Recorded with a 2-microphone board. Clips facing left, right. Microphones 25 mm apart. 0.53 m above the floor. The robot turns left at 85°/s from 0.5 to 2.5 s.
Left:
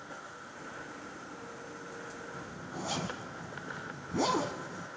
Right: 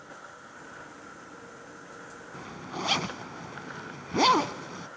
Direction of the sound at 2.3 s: 70° right (ahead or behind).